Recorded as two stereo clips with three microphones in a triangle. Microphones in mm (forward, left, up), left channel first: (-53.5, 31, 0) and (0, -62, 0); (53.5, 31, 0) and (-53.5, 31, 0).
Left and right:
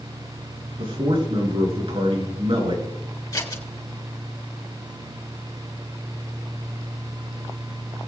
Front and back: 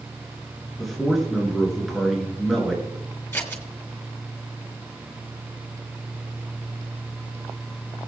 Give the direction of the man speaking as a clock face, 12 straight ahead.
3 o'clock.